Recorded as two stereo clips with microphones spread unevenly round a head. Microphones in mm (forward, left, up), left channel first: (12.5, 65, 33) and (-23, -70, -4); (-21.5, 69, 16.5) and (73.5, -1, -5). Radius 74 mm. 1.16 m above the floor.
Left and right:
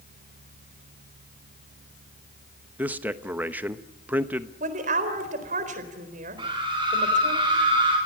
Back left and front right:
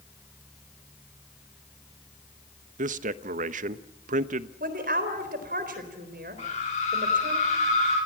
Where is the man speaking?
25° right, 1.0 m.